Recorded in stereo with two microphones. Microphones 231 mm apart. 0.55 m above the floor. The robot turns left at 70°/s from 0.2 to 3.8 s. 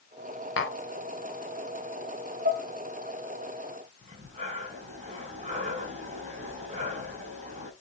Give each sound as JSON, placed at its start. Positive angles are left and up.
{"t": 0.6, "sound": "tapping", "side_deg": 65, "distance_m": 2.0}
{"t": 2.5, "sound": "dishes clattering", "side_deg": -45, "distance_m": 2.5}
{"t": 4.0, "sound": "breathing", "side_deg": -30, "distance_m": 5.5}